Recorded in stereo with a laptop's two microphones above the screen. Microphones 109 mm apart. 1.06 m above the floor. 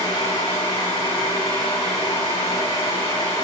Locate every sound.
0.0 s a fan: 75° left (ahead or behind), 3 m